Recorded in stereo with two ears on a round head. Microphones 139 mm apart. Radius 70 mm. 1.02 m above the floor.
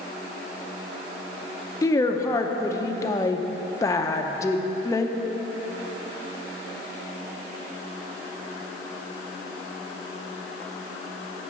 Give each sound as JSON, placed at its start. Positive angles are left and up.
{"t": 1.8, "sound": "a woman speaking", "side_deg": 20, "distance_m": 0.6}